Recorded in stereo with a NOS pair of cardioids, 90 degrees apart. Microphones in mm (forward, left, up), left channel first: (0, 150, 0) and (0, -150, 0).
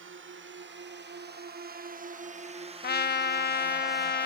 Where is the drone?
45° right; by 4.3 s 5° left.